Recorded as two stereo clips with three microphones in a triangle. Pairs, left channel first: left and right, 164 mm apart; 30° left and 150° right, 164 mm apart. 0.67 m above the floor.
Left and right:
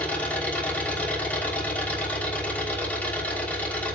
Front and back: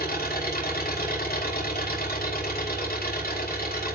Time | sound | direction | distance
0.0 | an engine running | 10° left | 3.5 m